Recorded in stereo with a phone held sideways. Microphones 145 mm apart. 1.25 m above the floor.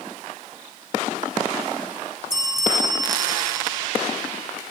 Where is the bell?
30° right (ahead or behind), 3 m.